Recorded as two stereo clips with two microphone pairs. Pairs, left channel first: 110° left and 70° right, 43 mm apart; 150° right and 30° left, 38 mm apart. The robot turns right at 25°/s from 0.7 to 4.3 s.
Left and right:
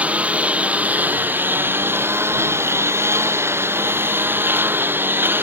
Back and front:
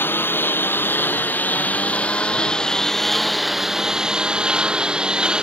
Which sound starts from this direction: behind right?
A lawn mower, at 0.0 s.